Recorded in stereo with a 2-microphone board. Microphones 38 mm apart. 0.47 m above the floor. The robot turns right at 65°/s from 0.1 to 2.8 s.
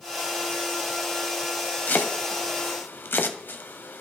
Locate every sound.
1.9 s chopping: 55° left (ahead or behind), 0.6 m; by 4.0 s 65° left (ahead or behind), 0.6 m